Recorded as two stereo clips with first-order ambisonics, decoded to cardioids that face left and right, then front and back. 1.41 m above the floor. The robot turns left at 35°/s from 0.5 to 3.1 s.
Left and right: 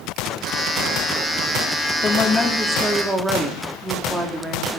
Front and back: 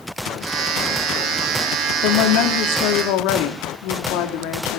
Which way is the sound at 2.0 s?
25° left.